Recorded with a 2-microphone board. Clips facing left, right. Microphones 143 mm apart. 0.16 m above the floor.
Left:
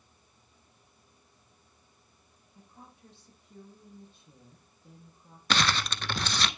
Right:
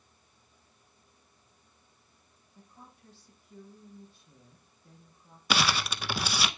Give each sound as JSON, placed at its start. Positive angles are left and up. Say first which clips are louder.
{"t": 2.5, "sound": "a woman speaking", "louder": "left 1 dB", "side_deg": 20, "distance_m": 6.0}
{"t": 5.5, "sound": "crumpling", "louder": "even", "side_deg": -10, "distance_m": 0.5}